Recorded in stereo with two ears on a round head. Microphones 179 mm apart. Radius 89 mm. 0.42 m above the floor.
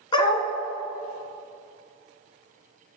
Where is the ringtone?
I don't hear a ringtone.